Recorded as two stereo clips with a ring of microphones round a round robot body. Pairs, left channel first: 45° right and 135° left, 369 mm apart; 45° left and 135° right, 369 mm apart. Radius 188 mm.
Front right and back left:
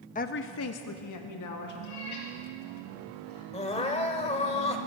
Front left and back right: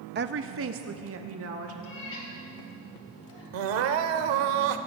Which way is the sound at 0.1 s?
100° right.